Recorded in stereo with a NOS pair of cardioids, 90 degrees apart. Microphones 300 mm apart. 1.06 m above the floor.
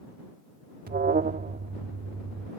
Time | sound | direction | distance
0.9 | an alarm | 30° right | ?